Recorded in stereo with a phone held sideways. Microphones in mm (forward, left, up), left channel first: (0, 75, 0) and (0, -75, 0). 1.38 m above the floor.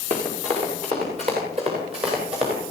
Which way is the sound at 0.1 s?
50° right (ahead or behind).